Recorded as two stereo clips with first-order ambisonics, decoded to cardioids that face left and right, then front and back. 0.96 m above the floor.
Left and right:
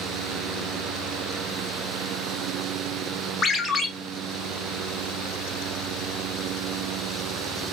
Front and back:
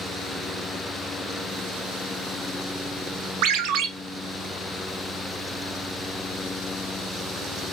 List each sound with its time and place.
3.4 s a ringtone: 160° left, 0.5 m